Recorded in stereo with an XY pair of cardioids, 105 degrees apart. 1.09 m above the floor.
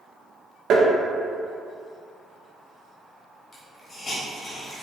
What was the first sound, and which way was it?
Tapping, 60° right.